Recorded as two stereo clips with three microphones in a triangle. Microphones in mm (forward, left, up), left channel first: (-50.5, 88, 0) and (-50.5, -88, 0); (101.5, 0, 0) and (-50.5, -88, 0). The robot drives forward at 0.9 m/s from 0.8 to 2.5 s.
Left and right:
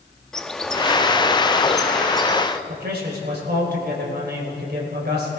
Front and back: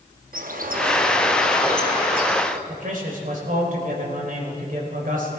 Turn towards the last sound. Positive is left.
turn(degrees=-110)